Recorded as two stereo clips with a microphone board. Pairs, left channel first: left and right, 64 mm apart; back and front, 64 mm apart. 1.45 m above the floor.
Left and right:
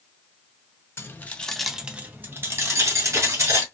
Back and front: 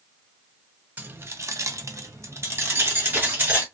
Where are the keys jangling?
50° left, 0.7 m; by 3.6 s 60° right, 1.7 m.